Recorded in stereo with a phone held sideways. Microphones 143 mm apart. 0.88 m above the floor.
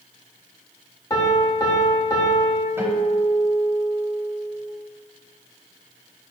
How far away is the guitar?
About 0.9 m.